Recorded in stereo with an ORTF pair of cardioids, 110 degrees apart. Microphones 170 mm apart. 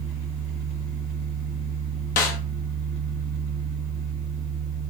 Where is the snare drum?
60° left, 1.0 m.